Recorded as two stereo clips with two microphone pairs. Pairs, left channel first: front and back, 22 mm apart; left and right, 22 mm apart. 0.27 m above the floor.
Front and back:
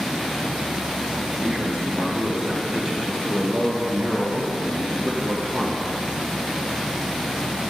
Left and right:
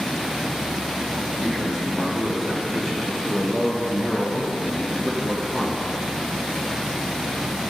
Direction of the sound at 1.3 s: 150° right.